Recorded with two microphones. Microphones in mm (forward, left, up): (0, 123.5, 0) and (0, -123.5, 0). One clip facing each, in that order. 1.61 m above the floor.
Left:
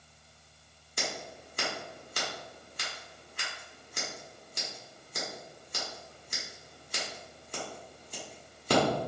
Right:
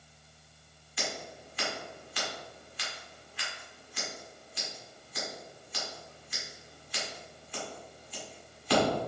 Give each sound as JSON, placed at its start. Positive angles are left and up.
{"t": 1.0, "sound": "scissors", "side_deg": 45, "distance_m": 1.2}